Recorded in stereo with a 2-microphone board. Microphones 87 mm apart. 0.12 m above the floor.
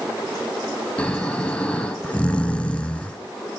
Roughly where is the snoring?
Centre.